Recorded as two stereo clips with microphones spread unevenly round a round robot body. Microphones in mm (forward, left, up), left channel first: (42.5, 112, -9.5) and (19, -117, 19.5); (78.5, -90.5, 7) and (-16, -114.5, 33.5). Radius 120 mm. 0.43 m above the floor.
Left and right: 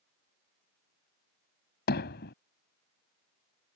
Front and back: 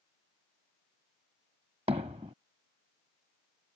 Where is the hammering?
135° left.